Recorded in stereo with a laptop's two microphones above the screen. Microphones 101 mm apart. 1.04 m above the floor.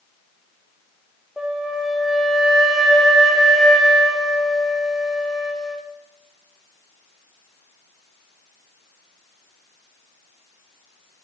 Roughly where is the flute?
Centre.